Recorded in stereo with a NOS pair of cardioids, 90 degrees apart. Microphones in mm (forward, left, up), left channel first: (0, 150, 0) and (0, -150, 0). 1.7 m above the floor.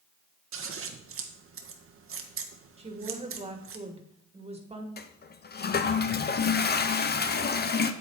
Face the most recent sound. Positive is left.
turn(degrees=35)